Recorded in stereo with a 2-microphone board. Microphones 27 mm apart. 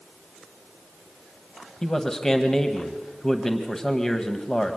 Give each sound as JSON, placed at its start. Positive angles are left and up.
{"t": 1.8, "sound": "a man speaking", "side_deg": 20, "distance_m": 1.2}